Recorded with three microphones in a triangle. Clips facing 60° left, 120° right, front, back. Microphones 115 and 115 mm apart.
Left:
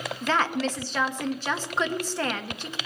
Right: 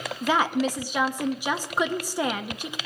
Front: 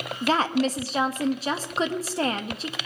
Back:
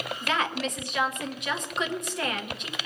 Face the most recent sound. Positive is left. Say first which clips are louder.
# right 3 dB, front 7 dB
turn(degrees=-45)